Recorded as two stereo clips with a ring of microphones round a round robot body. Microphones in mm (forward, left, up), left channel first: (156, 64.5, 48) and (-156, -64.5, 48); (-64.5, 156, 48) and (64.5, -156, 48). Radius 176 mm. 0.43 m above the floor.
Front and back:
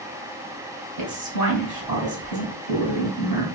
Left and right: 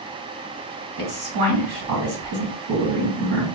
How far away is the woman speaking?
About 3 m.